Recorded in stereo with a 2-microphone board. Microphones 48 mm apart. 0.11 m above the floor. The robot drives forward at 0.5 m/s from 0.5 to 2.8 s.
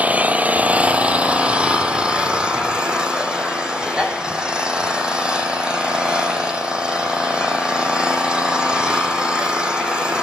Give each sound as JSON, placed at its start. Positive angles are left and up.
{"t": 0.0, "sound": "an engine running", "side_deg": -25, "distance_m": 1.5}